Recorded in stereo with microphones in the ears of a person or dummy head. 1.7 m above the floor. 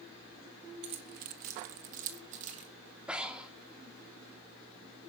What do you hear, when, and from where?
0.8 s keys jangling: 25° right (ahead or behind), 1.1 m; by 2.7 s 40° right (ahead or behind), 2.5 m
3.1 s breathing: 5° right (ahead or behind), 1.7 m